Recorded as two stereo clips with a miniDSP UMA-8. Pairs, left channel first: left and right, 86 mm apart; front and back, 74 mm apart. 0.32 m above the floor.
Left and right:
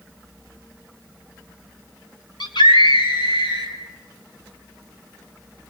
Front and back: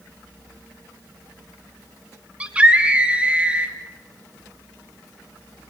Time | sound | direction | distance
2.4 | a scream | 110° left | 3 m